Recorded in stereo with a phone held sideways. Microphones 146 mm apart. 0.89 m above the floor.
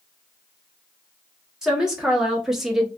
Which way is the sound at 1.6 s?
5° right (ahead or behind).